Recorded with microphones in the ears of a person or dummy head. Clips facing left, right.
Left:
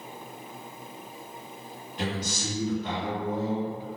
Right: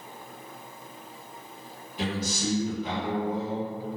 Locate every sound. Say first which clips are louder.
2.0 s a man speaking: right 2 dB; 5° right (ahead or behind), 1.2 m